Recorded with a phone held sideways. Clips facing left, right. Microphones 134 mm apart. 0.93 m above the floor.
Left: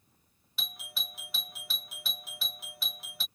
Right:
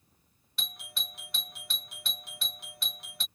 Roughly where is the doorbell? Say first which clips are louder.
Even; centre.